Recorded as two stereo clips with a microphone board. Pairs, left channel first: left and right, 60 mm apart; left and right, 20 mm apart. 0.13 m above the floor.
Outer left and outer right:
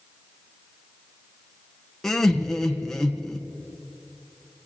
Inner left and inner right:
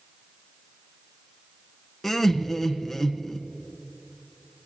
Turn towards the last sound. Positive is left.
turn(degrees=5)  # may be behind; listen again after turning